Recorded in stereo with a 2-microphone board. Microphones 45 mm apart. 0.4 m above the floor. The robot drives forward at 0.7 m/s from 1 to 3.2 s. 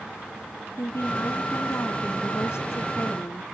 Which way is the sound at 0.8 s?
75° left (ahead or behind).